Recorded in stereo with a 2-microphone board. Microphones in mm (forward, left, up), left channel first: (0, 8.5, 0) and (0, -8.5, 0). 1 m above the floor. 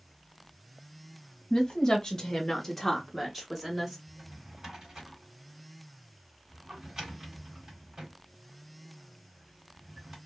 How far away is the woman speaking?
About 0.9 m.